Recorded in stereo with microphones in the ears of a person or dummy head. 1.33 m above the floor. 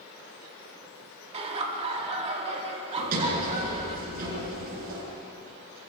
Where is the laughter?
35° right (ahead or behind), 4 m.